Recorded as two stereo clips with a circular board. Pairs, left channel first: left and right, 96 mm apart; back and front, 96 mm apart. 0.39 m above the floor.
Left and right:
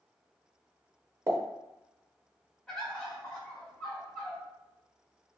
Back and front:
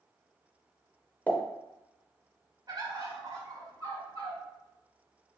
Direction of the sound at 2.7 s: 10° left.